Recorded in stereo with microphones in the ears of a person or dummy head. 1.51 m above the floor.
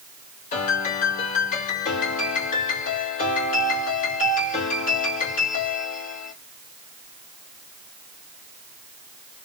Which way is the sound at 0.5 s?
45° left (ahead or behind).